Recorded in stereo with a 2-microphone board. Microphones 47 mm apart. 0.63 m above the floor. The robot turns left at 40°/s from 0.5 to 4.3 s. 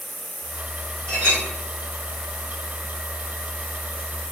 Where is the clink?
25° left (ahead or behind), 1.8 m; by 1.4 s 15° left (ahead or behind), 1.8 m.